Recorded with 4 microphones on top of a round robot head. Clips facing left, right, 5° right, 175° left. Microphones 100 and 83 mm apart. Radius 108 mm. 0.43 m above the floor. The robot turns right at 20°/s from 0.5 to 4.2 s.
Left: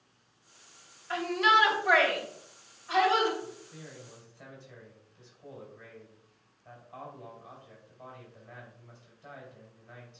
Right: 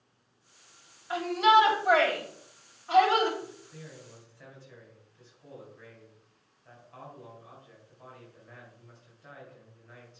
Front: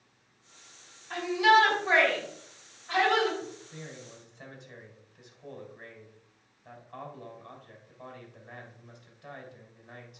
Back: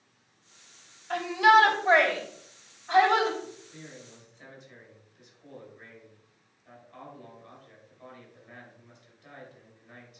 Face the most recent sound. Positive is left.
turn(degrees=25)